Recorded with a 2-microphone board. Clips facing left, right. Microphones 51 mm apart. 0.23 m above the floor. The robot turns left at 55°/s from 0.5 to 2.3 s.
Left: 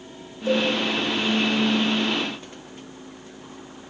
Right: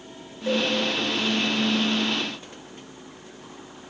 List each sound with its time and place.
0.5 s a cowbell: 40° right (ahead or behind), 1.5 m; by 0.7 s 35° right (ahead or behind), 1.5 m